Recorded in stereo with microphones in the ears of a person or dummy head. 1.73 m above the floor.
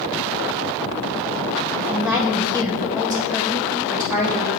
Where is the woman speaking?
20° right (ahead or behind), 1.9 m.